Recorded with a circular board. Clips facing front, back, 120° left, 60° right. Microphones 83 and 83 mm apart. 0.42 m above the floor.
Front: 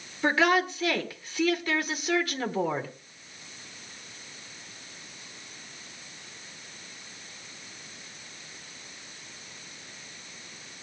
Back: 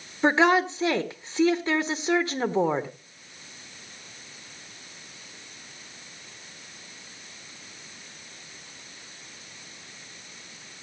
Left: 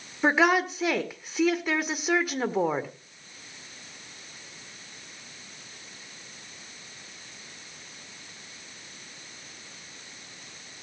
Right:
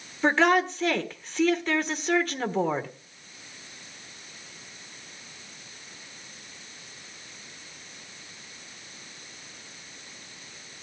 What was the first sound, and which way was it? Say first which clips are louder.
A woman speaking: back 3 dB, right 1 dB; 170° right.